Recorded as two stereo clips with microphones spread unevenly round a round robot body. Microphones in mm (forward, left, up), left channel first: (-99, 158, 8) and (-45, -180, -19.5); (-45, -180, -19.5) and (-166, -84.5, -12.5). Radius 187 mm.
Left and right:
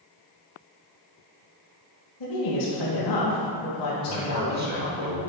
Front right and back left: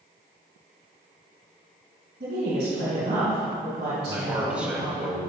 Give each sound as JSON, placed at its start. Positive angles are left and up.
{"t": 2.2, "sound": "a woman speaking", "azimuth_deg": 95, "distance_m": 2.5}
{"t": 4.1, "sound": "a man speaking", "azimuth_deg": -135, "distance_m": 3.0}